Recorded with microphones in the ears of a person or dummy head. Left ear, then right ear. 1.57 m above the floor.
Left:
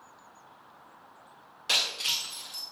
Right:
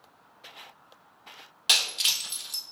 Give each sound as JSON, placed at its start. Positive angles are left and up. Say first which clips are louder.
{"t": 1.7, "sound": "breaking glass", "louder": "right 3 dB", "side_deg": -35, "distance_m": 1.4}